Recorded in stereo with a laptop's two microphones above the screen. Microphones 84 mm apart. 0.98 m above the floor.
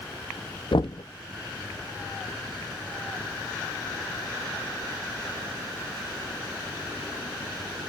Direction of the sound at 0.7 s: 75° left (ahead or behind).